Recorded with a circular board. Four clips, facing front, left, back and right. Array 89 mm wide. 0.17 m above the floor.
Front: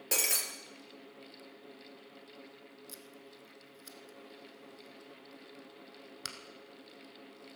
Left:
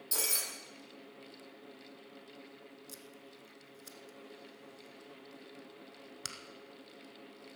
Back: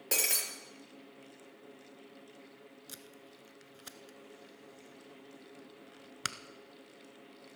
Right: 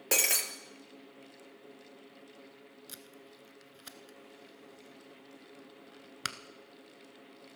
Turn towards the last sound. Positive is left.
turn(degrees=-135)